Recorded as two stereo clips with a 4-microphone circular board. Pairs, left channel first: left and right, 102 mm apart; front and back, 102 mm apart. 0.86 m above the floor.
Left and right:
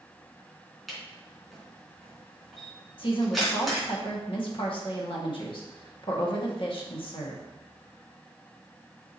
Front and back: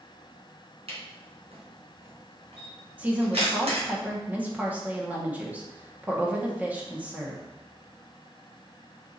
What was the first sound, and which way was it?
A camera shutter, straight behind.